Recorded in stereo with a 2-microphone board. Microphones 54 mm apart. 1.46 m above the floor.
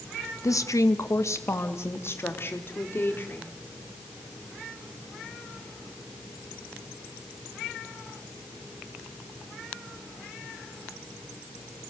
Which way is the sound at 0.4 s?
85° left.